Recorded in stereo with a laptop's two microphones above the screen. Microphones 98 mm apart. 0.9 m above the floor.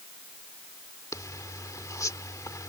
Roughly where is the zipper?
Left.